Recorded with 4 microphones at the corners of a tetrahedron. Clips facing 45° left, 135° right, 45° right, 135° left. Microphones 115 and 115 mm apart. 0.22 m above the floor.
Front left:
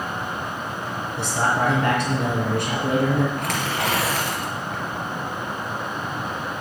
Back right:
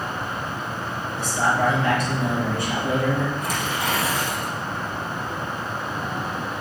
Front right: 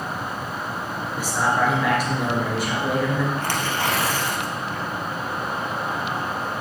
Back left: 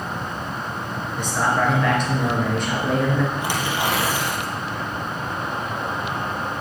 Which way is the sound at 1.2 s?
40° left.